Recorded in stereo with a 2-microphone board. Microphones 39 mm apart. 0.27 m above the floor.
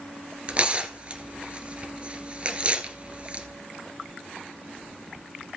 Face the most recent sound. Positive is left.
turn(degrees=-30)  # may be behind; listen again after turning